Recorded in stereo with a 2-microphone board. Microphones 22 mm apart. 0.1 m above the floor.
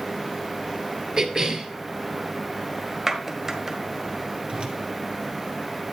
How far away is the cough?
About 1.7 m.